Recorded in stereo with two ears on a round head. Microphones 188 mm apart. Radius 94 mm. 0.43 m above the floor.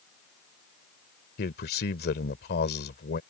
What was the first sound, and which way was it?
A man speaking, 50° left (ahead or behind).